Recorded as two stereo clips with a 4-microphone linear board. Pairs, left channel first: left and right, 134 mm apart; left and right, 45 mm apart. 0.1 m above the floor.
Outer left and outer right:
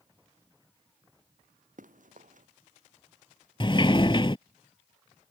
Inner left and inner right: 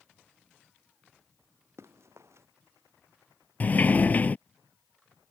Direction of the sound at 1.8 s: 75° right (ahead or behind).